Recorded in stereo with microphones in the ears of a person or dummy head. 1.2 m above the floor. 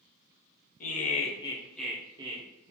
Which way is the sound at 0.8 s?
45° left (ahead or behind).